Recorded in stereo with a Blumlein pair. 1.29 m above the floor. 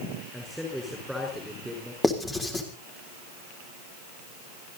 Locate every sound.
0.3 s a man speaking: straight ahead, 5 m
2.0 s writing: 15° left, 3.5 m